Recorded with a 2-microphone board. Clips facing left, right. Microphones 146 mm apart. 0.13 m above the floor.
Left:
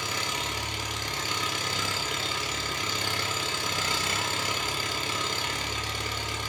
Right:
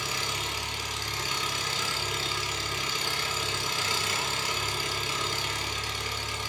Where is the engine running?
60° left (ahead or behind), 0.7 m.